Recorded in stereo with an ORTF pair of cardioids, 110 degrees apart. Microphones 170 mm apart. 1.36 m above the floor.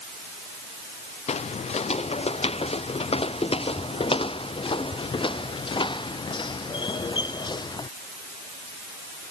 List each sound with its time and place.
1.3 s footsteps: 35° left; by 7.9 s 25° left